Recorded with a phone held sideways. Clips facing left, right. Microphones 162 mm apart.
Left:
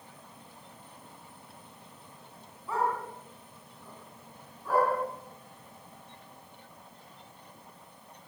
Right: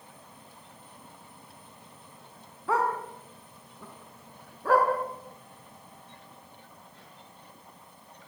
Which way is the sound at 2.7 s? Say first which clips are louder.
Right 3 dB; 75° right (ahead or behind).